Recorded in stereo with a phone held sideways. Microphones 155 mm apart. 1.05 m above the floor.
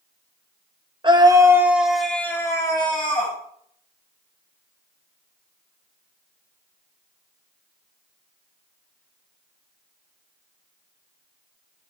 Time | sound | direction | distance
1.0 | a scream | 30° right (ahead or behind) | 0.9 m